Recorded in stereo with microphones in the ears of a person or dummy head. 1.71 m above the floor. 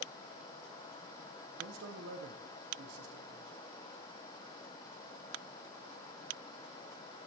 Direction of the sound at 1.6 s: 65° right (ahead or behind).